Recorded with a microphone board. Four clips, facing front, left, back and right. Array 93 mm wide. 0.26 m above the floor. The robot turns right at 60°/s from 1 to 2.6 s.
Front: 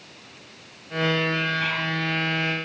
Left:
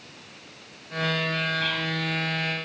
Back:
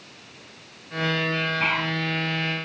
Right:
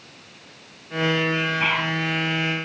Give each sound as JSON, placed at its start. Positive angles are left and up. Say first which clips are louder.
{"t": 1.6, "sound": "whispering", "louder": "right 5 dB, back 2 dB", "azimuth_deg": -130}